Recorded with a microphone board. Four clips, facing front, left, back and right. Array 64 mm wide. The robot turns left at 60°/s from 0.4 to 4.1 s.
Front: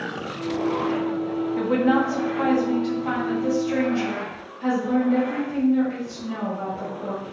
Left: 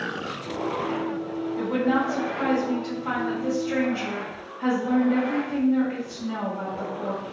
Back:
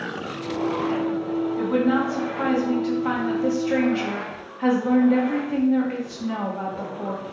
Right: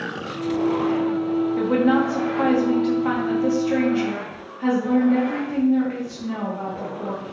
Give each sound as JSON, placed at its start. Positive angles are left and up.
{"t": 1.6, "sound": "a woman speaking", "azimuth_deg": -30, "distance_m": 1.0}